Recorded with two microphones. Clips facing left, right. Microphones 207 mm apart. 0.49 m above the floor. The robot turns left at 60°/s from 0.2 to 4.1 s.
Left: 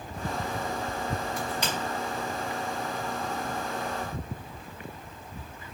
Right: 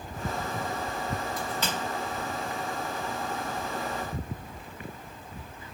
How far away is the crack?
About 2.5 m.